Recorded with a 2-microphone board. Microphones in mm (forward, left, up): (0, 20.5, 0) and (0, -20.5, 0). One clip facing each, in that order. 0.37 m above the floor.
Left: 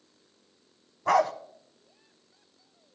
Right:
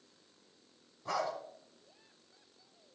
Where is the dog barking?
80° left, 1.0 m.